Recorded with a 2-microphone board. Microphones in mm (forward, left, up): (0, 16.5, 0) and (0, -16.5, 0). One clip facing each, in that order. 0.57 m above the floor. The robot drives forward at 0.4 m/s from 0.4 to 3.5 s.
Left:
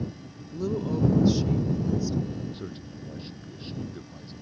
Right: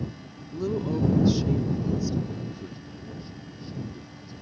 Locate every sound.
0.5 s a woman speaking: 10° right (ahead or behind); by 2.4 s 5° right (ahead or behind)
2.5 s a man speaking: 55° left (ahead or behind); by 4.3 s 50° left (ahead or behind)